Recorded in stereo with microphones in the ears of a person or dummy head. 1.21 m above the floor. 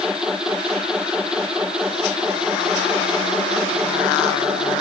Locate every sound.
0.0 s a machine running: 5° right (ahead or behind)